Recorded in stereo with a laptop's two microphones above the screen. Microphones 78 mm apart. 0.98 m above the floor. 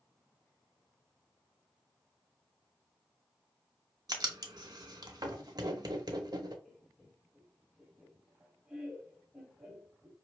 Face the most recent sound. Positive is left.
turn(degrees=0)  # may be behind; listen again after turning